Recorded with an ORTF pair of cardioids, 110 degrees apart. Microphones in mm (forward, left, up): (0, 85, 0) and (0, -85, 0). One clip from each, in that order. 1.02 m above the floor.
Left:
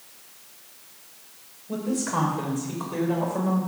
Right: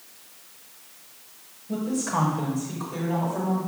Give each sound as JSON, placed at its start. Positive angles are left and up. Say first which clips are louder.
{"t": 1.7, "sound": "a woman speaking", "louder": "even", "azimuth_deg": 15, "distance_m": 4.0}